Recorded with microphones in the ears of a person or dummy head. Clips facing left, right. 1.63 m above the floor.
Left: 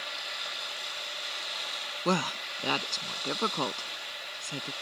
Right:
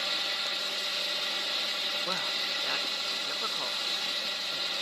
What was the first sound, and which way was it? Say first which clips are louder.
A fan: right 4 dB; 55° right (ahead or behind).